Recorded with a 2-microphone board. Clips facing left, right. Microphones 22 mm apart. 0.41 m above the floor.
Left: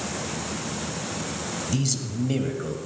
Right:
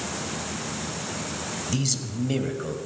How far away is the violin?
I don't hear a violin.